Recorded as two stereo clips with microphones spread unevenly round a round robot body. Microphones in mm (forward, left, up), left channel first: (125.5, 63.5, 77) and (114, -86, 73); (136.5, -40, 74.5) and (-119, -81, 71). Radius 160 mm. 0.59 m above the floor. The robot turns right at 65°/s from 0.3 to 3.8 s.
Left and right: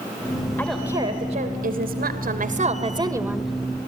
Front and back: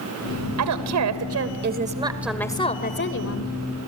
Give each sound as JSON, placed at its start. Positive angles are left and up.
{"t": 0.6, "sound": "a woman speaking", "azimuth_deg": 165, "distance_m": 3.0}